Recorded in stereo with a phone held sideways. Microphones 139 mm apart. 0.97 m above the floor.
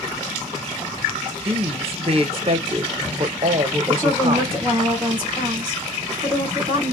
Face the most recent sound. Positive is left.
turn(degrees=-15)  # may be behind; listen again after turning